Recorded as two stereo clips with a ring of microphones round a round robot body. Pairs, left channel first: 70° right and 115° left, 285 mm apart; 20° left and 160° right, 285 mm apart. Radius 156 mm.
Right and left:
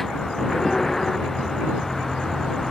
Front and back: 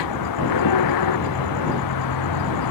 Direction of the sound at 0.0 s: 20° left.